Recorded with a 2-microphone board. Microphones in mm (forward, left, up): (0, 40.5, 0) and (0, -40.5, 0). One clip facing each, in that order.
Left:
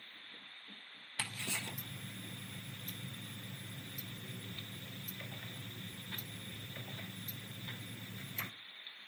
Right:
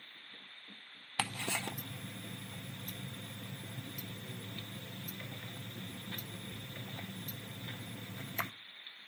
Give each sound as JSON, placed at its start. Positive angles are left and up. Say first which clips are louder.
{"t": 1.2, "sound": "ticking", "louder": "right 6 dB", "side_deg": -65, "distance_m": 0.6}